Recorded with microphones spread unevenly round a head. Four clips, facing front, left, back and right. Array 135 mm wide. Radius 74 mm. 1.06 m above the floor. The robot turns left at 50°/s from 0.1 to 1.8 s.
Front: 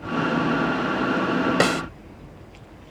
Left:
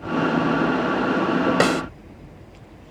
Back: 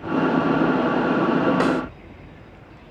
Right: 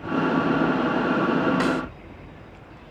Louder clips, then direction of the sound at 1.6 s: Left 4 dB, back 1 dB; 45° left.